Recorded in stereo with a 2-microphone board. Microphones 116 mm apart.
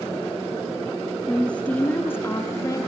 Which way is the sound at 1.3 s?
5° left (ahead or behind).